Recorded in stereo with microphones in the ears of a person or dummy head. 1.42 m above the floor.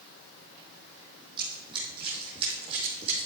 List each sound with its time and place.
1.4 s running footsteps: 30° right (ahead or behind), 3 m; by 3.3 s 35° right (ahead or behind), 3.5 m